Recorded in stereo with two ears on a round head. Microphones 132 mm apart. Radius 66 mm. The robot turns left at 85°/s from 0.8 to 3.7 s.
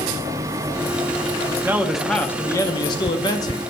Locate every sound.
1.6 s a man speaking: 15° right (ahead or behind), 0.6 m; by 3.6 s 20° left (ahead or behind), 0.6 m